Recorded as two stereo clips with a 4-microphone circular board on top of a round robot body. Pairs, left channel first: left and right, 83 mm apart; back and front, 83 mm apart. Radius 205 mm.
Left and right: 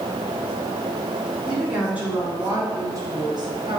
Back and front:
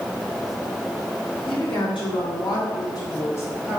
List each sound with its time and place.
1.5 s a woman speaking: 170° right, 3.5 m; by 3.8 s 110° right, 2.5 m